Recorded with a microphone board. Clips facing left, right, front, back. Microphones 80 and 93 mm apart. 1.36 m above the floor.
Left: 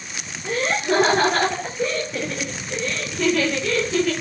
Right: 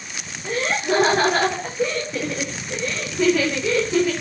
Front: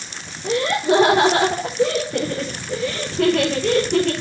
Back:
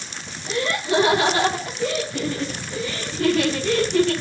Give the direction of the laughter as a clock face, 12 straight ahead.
12 o'clock.